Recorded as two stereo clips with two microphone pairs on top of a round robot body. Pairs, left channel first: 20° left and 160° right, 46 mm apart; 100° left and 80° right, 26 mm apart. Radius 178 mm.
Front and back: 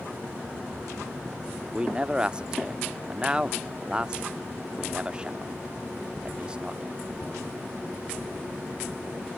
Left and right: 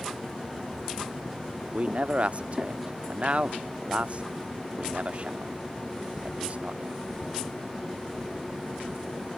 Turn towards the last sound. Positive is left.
turn(degrees=-100)